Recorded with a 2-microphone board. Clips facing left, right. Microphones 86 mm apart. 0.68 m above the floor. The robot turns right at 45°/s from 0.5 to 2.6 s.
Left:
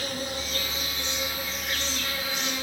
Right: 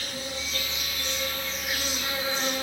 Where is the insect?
130° left, 0.7 m; by 2.6 s 135° right, 0.7 m.